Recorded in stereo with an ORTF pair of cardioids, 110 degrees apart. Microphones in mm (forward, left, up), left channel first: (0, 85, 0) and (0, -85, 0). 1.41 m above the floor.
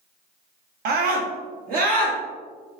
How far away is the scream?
About 0.8 m.